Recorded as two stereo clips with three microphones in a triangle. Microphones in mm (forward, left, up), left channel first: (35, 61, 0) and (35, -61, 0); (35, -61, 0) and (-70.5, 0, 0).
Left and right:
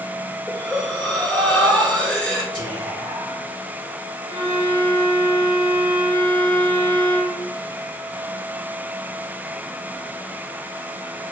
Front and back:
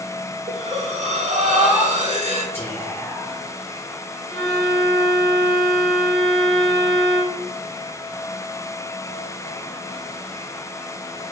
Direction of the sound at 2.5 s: 90° right.